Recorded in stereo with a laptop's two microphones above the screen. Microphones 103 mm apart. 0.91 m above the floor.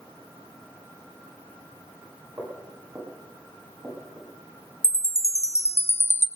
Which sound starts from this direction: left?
A chime, at 4.8 s.